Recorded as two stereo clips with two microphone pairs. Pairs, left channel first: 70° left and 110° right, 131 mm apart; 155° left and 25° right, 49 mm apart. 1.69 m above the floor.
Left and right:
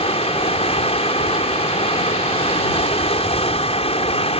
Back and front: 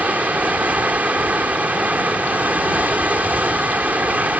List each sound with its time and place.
0.0 s running water: 35° left